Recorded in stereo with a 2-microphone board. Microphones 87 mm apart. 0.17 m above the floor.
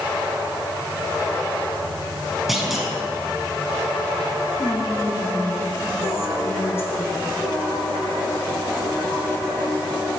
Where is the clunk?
Centre (ahead or behind), 1.5 m.